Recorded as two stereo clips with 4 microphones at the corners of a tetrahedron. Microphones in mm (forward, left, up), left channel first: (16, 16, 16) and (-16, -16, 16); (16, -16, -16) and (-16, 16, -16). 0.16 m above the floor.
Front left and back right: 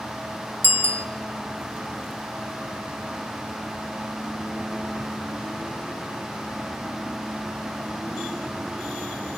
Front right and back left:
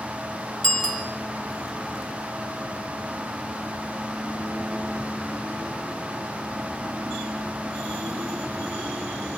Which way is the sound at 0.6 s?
120° right.